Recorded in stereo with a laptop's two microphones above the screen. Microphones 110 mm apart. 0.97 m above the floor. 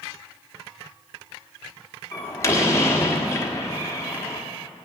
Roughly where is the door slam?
Left.